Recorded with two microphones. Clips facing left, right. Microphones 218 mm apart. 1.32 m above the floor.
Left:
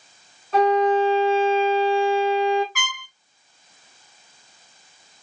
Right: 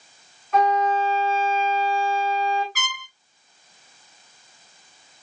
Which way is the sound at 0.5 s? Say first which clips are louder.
Left 4 dB; 35° left (ahead or behind).